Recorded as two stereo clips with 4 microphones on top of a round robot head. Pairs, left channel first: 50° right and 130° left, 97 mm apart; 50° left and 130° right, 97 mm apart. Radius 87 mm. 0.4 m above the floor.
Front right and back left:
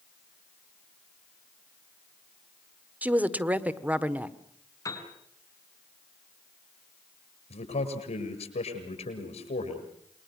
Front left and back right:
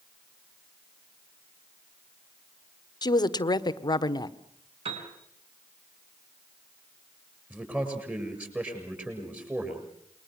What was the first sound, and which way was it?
A woman speaking, 65° left.